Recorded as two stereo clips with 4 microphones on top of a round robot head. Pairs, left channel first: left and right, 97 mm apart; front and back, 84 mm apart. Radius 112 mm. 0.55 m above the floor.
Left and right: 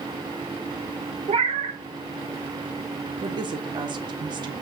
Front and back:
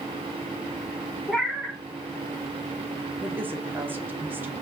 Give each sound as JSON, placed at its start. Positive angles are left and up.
{"t": 1.3, "sound": "a cat meowing", "azimuth_deg": -90, "distance_m": 1.2}
{"t": 3.2, "sound": "a woman speaking", "azimuth_deg": -115, "distance_m": 1.2}